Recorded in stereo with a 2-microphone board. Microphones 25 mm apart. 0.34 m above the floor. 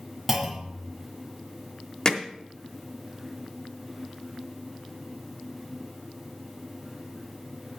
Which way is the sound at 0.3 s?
10° right (ahead or behind).